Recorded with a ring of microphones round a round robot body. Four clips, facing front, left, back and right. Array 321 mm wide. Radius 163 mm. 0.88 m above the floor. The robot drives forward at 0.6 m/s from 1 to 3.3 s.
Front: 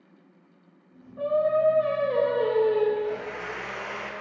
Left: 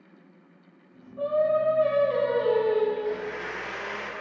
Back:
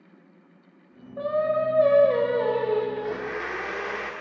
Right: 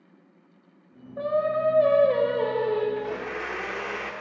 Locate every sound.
1.2 s singing: 130° right, 1.7 m; by 2.9 s 150° right, 2.5 m
3.0 s a blender: 140° right, 1.0 m; by 4.1 s 150° right, 1.2 m